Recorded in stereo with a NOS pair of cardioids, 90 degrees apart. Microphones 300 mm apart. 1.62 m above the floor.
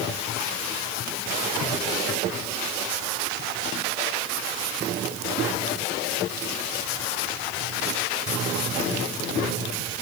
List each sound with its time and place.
Only background noise.